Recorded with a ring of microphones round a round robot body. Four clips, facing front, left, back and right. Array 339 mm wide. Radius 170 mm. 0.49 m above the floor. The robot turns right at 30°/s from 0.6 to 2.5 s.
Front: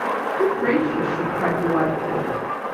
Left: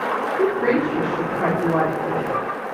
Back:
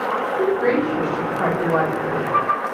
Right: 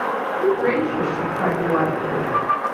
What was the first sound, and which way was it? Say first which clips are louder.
A woman speaking: even, even; 135° left.